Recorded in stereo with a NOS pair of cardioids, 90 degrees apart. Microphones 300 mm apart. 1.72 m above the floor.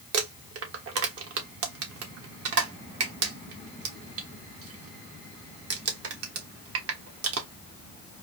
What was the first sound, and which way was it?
Crumpling, 50° right.